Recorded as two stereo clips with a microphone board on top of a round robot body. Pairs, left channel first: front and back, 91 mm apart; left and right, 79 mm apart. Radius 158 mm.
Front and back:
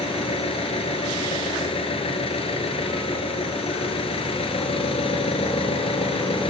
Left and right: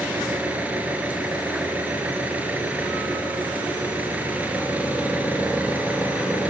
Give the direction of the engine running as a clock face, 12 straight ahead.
1 o'clock.